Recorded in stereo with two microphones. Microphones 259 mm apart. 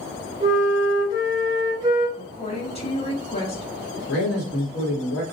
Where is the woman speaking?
25° left (ahead or behind), 1.3 m.